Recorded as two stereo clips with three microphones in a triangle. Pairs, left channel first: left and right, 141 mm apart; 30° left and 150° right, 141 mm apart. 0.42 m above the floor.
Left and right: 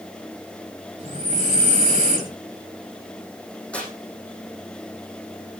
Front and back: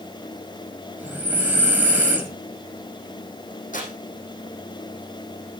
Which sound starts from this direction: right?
Breathing, at 1.0 s.